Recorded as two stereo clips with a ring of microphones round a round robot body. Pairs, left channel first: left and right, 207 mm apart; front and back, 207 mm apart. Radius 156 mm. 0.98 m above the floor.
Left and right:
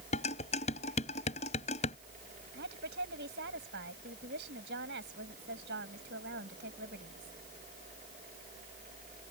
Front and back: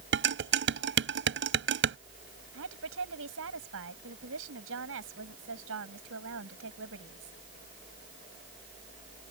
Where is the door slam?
No door slam in this recording.